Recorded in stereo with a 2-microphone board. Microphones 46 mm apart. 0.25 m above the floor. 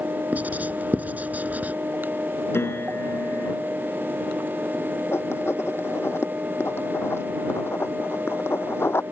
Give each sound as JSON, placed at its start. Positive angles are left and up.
{"t": 0.3, "sound": "writing", "side_deg": -35}
{"t": 2.5, "sound": "a piano", "side_deg": 65}
{"t": 5.1, "sound": "writing", "side_deg": 65}